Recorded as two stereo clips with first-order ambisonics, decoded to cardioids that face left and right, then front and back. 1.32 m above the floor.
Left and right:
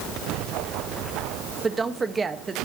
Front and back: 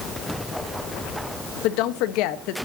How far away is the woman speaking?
About 1.2 m.